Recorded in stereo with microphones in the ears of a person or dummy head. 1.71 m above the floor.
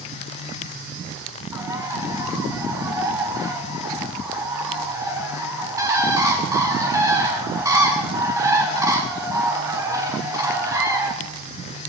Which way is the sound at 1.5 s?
10° right (ahead or behind).